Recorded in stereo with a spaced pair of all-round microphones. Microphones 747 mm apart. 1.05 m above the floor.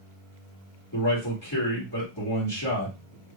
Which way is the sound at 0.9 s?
30° left (ahead or behind).